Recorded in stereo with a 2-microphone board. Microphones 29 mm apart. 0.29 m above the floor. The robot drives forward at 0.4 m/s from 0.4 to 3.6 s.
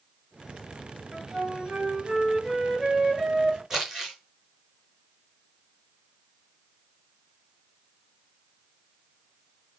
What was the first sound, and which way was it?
A flute, 35° right (ahead or behind).